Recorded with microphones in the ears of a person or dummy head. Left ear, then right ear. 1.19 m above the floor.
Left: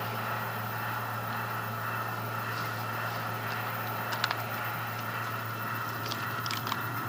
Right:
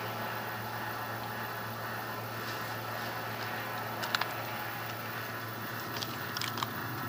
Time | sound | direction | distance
0.0 | a fan | 45° left (ahead or behind) | 1.5 m